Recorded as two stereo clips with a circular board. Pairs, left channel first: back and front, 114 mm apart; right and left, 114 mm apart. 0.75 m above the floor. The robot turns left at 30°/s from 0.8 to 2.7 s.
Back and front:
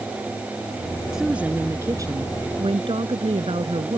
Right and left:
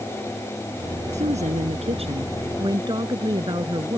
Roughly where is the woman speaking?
Left.